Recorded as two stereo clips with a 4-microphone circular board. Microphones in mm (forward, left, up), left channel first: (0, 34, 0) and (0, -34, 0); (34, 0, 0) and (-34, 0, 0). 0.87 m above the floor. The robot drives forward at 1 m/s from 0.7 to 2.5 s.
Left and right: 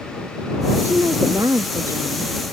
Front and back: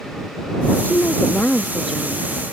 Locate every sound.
0.8 s a woman speaking: 45° right; by 2.3 s 120° right